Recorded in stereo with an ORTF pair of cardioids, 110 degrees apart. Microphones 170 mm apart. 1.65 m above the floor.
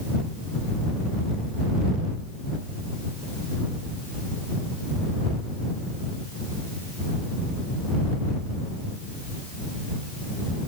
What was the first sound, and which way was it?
Only background noise.